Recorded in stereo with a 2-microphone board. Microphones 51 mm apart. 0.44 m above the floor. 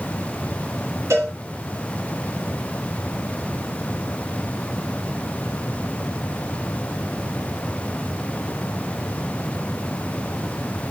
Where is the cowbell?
85° right, 4 m.